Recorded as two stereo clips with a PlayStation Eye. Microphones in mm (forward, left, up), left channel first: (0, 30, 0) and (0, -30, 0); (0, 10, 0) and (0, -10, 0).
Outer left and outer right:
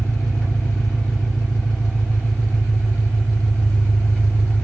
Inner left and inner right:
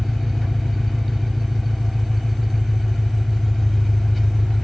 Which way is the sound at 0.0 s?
25° left (ahead or behind).